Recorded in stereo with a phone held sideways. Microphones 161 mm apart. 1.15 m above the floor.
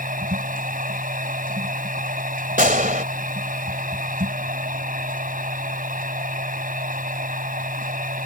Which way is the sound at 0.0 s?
55° right (ahead or behind).